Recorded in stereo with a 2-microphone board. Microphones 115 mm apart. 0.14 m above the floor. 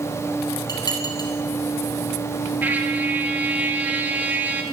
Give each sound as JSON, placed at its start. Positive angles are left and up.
{"t": 0.7, "sound": "dishes clattering", "side_deg": 35, "distance_m": 3.0}
{"t": 2.6, "sound": "a trumpet", "side_deg": -15, "distance_m": 1.3}